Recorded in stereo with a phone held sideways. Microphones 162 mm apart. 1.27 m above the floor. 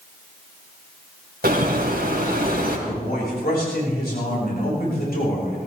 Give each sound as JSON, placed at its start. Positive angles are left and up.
{"t": 1.4, "sound": "a bird", "side_deg": -75, "distance_m": 3.0}
{"t": 2.9, "sound": "a man speaking", "side_deg": 75, "distance_m": 5.5}